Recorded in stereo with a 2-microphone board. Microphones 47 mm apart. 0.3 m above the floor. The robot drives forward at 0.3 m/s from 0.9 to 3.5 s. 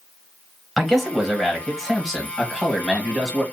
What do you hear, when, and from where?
0.8 s a man speaking: centre (ahead or behind), 1.2 m